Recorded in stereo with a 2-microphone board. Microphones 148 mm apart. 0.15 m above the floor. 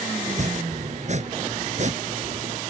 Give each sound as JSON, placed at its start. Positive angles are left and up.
{"t": 0.2, "sound": "chopping", "side_deg": -55}